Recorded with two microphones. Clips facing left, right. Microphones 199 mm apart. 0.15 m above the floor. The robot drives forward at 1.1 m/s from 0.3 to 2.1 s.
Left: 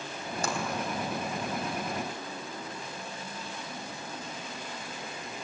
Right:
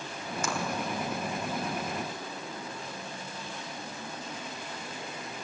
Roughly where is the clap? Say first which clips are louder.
Left 1 dB; left.